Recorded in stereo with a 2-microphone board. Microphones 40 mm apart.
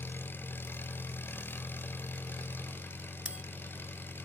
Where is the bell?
25° right (ahead or behind), 0.6 m.